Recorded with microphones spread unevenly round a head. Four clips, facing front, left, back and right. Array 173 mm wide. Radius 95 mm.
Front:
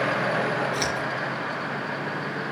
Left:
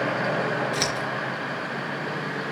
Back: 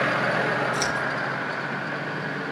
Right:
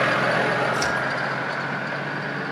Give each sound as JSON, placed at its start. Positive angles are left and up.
{"t": 0.7, "sound": "scissors", "azimuth_deg": 95, "distance_m": 4.0}